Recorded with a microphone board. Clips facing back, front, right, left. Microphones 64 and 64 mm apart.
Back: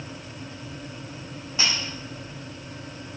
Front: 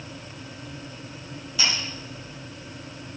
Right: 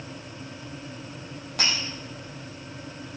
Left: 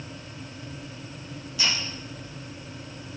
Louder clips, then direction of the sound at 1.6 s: Even, even; 120° right.